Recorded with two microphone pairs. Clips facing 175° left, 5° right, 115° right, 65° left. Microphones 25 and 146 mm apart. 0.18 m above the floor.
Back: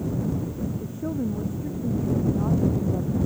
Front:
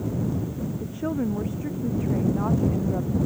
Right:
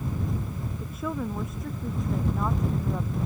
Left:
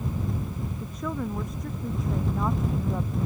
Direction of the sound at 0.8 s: 35° right.